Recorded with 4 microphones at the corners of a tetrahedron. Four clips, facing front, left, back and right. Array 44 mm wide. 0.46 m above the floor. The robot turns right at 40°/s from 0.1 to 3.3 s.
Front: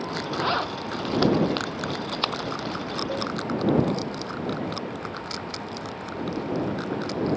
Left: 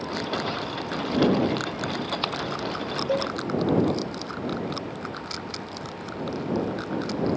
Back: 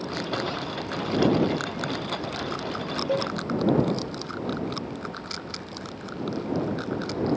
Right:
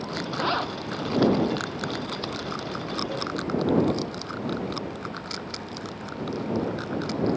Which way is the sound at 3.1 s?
130° left.